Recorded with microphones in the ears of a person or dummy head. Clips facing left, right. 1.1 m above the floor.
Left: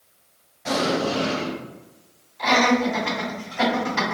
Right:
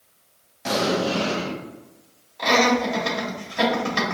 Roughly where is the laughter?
Right.